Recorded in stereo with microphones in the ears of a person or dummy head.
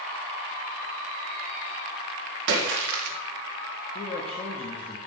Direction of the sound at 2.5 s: 70° right (ahead or behind).